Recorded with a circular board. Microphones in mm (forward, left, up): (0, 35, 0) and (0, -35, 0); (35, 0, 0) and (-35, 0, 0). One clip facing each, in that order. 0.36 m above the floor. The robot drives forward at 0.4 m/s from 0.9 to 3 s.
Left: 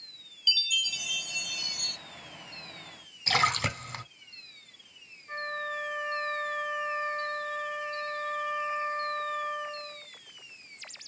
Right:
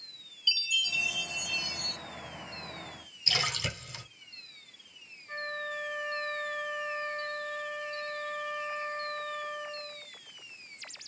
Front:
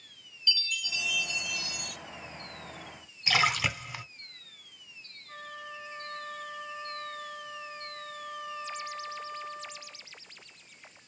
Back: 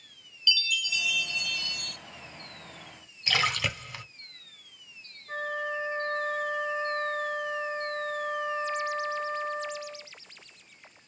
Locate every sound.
0.5 s a chime: 60° left, 1.2 m; by 2.0 s 80° left, 1.1 m
3.3 s a splash: 80° left, 1.0 m
5.3 s a flute: 155° left, 1.0 m